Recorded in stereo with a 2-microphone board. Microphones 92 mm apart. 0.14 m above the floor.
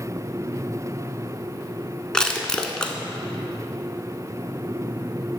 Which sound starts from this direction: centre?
Crushing, at 2.1 s.